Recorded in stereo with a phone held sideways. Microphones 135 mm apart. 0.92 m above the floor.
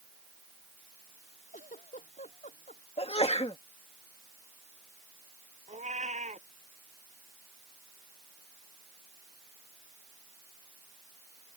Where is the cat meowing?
60° right (ahead or behind).